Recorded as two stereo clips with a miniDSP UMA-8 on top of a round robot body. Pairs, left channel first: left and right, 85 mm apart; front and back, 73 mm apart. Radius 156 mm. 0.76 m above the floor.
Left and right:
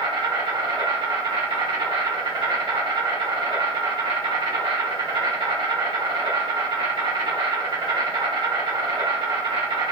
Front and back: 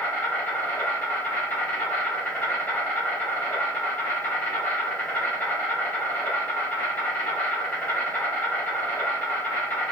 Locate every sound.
0.0 s an insect: 65° right, 1.6 m